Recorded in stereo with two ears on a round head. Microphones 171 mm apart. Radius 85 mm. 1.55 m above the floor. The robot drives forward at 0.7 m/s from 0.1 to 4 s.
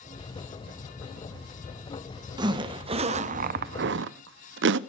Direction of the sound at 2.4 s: 20° right (ahead or behind).